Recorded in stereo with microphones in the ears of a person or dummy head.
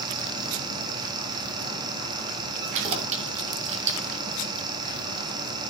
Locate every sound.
0.0 s a fan: 25° right (ahead or behind), 2.5 m
2.7 s keys jangling: 40° right (ahead or behind), 2.5 m